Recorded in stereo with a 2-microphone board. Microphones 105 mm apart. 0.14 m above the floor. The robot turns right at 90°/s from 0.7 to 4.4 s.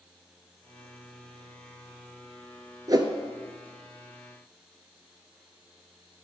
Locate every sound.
2.9 s a whoosh: 35° right (ahead or behind), 0.7 m; by 3.1 s 55° right (ahead or behind), 0.7 m